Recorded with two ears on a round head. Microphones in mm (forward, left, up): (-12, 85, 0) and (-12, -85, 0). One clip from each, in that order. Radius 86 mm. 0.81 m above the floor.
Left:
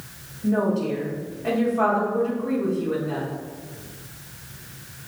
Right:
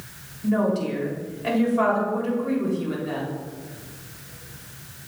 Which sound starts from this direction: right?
A woman speaking, at 0.4 s.